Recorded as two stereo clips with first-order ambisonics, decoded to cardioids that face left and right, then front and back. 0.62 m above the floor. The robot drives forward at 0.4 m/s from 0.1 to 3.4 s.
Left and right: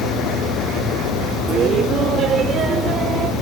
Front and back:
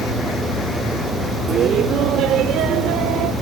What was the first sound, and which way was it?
Laughter, 135° right.